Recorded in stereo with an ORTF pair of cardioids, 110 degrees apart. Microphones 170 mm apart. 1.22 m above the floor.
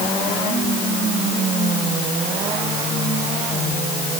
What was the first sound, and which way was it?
Only background noise.